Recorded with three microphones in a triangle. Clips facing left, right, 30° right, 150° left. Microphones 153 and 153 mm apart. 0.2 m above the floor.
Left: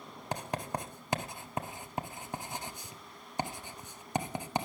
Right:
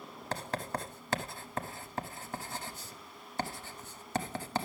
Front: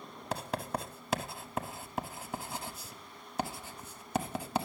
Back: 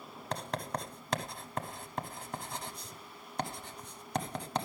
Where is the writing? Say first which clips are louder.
Left 1 dB, front 1 dB; 45° left, 0.6 m.